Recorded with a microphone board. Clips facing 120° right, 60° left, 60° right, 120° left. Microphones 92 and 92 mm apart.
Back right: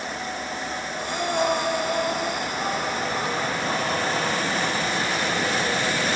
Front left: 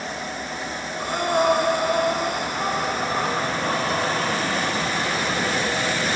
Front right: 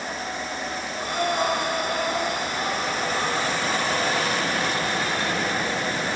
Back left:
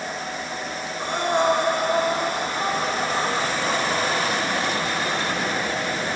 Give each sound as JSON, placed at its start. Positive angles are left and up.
{"t": 1.0, "sound": "breathing", "azimuth_deg": 70, "distance_m": 1.1}